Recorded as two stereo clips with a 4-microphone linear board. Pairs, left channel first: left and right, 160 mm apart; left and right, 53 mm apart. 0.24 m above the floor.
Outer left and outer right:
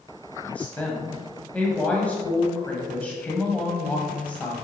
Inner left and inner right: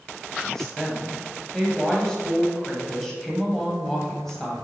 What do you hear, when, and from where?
0.4 s a woman speaking: 10° left (ahead or behind), 1.3 m